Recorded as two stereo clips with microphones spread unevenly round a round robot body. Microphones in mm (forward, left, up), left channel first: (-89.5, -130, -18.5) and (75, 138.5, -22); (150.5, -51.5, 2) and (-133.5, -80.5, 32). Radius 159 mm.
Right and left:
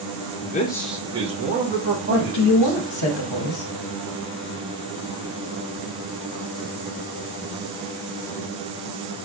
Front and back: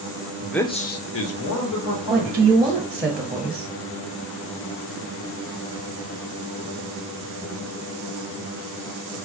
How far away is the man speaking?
About 0.5 m.